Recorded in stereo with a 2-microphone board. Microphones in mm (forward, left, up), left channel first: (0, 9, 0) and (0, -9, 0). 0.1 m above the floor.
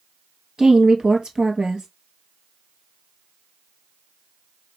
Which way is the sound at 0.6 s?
45° right (ahead or behind).